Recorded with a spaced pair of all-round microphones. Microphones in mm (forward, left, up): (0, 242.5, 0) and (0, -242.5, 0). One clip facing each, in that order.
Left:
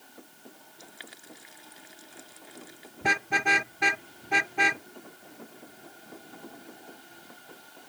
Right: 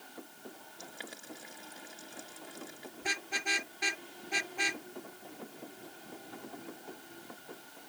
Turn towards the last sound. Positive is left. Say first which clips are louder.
# left 10 dB
turn(degrees=75)  # may be behind; listen again after turning